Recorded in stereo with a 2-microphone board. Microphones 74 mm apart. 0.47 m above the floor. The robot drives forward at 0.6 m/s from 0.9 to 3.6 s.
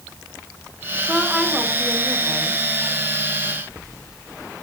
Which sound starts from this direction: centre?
A woman speaking, at 1.1 s.